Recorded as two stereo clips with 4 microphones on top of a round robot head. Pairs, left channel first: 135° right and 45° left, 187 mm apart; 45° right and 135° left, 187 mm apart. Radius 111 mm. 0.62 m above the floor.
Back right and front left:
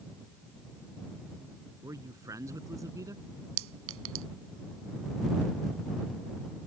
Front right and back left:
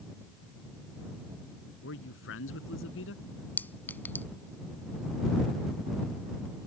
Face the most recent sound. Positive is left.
turn(degrees=35)